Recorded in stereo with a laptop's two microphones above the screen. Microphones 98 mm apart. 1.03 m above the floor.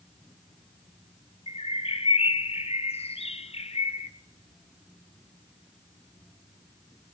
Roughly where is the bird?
Left.